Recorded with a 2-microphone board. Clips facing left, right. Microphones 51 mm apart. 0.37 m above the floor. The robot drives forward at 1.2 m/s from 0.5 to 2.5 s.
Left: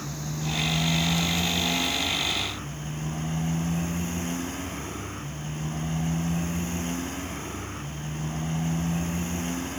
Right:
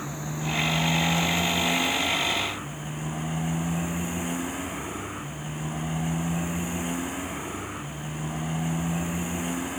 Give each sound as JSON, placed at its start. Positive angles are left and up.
{"t": 0.0, "sound": "a motorcycle", "side_deg": -15}